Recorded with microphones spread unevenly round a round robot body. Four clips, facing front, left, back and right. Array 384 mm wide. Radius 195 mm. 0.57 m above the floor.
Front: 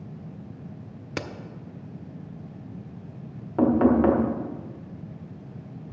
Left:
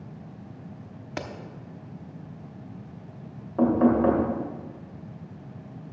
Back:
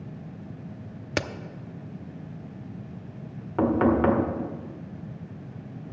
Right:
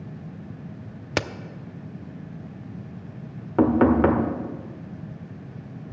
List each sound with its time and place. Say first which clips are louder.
1.2 s a crack: right 8 dB, back 4 dB; 140° right, 0.7 m
3.6 s knocking: right 2 dB, front 2 dB; 100° right, 1.8 m